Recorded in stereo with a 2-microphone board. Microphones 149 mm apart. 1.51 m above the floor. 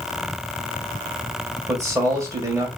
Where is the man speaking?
20° right (ahead or behind), 1.6 m.